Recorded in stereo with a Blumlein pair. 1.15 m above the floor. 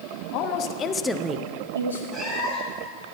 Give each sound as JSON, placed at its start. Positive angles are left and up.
{"t": 0.3, "sound": "a woman speaking", "azimuth_deg": 45, "distance_m": 1.2}
{"t": 2.1, "sound": "a cat meowing", "azimuth_deg": -15, "distance_m": 3.0}